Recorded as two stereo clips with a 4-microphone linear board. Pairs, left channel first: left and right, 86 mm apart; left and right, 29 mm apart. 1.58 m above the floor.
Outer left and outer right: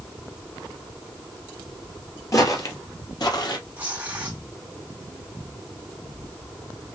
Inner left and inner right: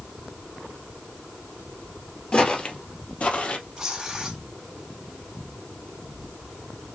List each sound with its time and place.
2.3 s footsteps: 40° left (ahead or behind), 2.0 m; by 3.6 s 55° left (ahead or behind), 2.5 m
3.8 s tearing paper: 20° right (ahead or behind), 3.5 m